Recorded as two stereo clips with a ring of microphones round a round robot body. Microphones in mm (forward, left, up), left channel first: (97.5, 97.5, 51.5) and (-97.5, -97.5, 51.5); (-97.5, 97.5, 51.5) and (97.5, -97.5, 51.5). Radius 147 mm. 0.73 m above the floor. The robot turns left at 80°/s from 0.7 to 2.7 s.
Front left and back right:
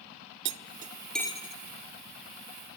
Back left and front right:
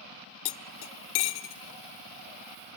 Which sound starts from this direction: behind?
Cutlery clinking, at 0.5 s.